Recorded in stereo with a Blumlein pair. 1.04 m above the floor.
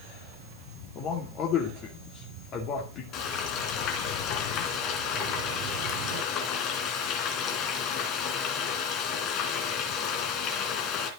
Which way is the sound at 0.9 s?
35° left.